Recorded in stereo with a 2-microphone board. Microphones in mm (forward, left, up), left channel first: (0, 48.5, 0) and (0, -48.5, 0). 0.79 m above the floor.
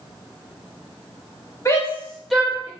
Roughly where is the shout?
Left.